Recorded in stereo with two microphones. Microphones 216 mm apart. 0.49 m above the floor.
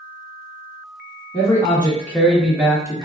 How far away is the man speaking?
About 0.9 m.